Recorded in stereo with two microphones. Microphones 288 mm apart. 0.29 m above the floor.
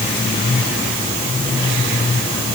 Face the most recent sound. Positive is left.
No sound to turn to.